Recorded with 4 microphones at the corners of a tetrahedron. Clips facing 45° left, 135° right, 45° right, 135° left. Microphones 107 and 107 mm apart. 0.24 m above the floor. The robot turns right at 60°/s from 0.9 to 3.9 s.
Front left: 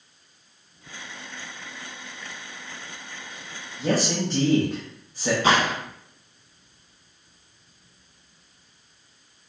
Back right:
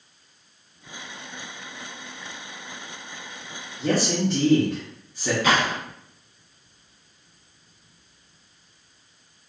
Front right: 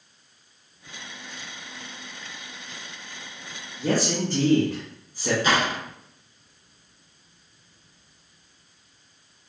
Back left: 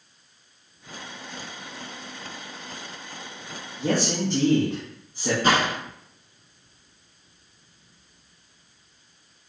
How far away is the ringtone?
No ringtone in this recording.